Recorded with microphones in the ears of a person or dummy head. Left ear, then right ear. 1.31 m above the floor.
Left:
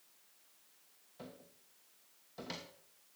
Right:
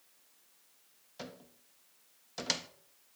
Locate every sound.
1.2 s a cupboard door: 60° right (ahead or behind), 0.9 m